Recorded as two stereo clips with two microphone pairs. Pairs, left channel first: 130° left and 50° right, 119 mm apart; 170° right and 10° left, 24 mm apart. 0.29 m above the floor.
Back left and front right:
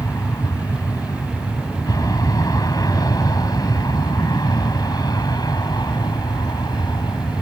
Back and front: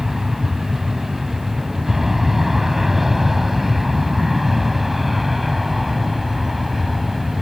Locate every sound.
0.0 s an aircraft: 80° left; by 7.4 s 95° left